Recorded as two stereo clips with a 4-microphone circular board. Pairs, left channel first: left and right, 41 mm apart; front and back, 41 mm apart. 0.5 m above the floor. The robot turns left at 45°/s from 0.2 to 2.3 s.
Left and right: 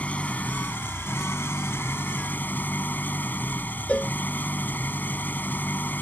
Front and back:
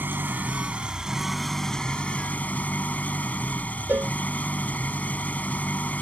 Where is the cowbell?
145° left.